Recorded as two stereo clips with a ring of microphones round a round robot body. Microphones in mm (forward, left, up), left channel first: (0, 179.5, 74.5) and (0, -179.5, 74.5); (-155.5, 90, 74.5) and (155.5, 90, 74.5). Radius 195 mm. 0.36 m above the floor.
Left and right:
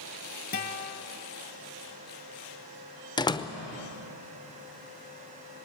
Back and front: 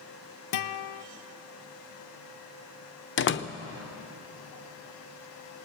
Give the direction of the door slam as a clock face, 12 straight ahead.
7 o'clock.